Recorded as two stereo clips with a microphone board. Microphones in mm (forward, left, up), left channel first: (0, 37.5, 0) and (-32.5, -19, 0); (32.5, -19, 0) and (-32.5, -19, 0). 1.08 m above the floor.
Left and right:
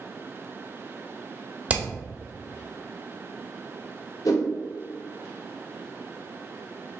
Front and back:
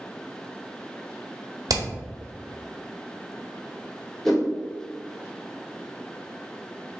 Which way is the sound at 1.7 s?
170° left.